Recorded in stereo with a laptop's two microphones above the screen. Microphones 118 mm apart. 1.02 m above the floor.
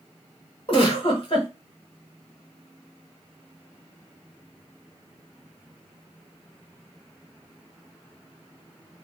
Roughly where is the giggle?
Left.